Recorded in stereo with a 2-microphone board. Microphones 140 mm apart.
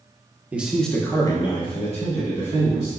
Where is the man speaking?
10° right (ahead or behind), 0.6 m; by 2.9 s 50° left (ahead or behind), 1.2 m.